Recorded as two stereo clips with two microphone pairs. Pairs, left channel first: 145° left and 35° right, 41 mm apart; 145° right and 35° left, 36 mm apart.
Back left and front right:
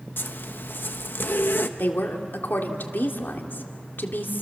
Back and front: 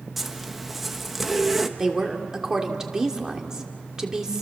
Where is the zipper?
120° left, 1.1 m.